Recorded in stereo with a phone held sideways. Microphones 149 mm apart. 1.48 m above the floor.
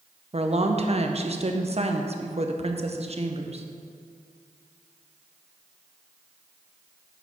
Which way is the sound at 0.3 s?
45° right (ahead or behind).